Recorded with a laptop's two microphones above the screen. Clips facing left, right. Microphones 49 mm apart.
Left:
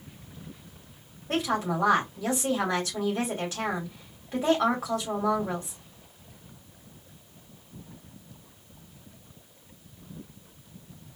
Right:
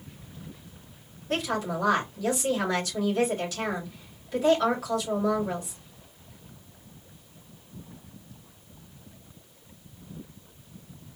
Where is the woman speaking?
25° left (ahead or behind), 2.5 m.